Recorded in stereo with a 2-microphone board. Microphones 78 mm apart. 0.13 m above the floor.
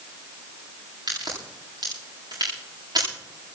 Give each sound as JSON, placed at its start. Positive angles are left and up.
{"t": 1.1, "sound": "a crack", "side_deg": -60, "distance_m": 9.5}